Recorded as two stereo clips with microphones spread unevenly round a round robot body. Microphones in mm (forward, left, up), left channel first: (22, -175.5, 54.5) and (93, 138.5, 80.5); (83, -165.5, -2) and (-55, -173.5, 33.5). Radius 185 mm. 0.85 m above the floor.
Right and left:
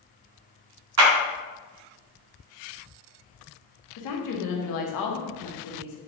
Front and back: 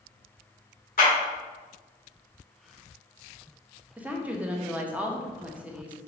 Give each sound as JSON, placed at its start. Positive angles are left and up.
{"t": 1.0, "sound": "a clap", "azimuth_deg": 35, "distance_m": 1.1}
{"t": 4.0, "sound": "a woman speaking", "azimuth_deg": -90, "distance_m": 0.9}